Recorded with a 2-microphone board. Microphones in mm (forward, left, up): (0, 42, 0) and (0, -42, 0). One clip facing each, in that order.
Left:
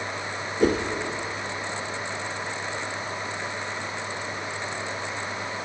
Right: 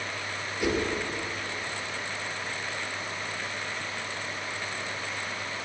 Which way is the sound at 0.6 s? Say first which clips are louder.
Left 6 dB; 40° left (ahead or behind).